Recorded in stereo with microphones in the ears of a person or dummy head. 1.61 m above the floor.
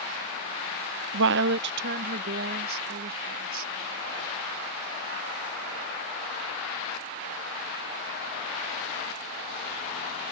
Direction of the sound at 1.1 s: 70° right (ahead or behind).